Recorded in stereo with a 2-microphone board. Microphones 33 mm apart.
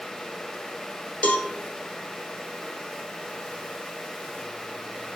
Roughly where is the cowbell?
Left.